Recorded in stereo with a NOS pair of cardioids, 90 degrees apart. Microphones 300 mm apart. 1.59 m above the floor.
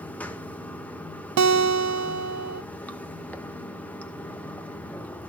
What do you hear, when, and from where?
0.0 s running water: 5° left, 0.8 m
1.4 s a guitar: 65° right, 0.7 m